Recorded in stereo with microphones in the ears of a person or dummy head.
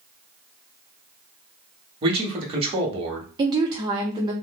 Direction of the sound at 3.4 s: 20° right (ahead or behind).